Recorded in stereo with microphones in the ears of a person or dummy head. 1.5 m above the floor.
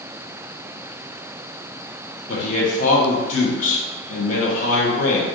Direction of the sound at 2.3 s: 40° left (ahead or behind).